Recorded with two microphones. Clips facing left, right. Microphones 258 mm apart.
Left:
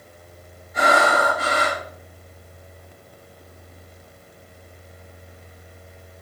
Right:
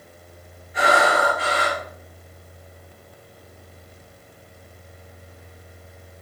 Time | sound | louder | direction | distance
0.7 | breathing | even | 45° left (ahead or behind) | 3.5 m